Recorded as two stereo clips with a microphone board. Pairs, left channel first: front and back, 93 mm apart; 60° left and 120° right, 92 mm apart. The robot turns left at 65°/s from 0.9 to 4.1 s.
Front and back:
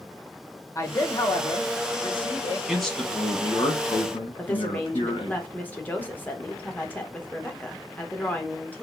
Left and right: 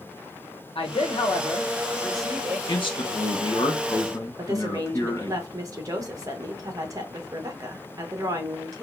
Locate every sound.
0.8 s a man speaking: 60° left, 0.9 m; by 2.6 s 50° right, 0.9 m
2.7 s a man speaking: 95° left, 1.1 m; by 5.4 s 5° left, 1.1 m
4.4 s a woman speaking: 70° right, 1.0 m